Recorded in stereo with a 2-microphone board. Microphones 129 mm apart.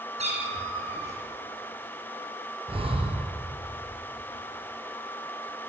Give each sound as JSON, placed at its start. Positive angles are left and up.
{"t": 0.2, "sound": "a cat meowing", "side_deg": -55, "distance_m": 4.5}
{"t": 2.7, "sound": "breathing", "side_deg": -45, "distance_m": 3.0}